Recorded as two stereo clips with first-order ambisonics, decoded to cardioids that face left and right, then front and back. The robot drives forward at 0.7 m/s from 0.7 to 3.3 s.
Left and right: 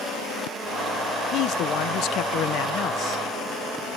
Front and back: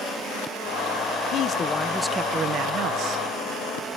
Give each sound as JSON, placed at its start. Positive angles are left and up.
{"t": 1.3, "sound": "a man speaking", "azimuth_deg": 45, "distance_m": 0.8}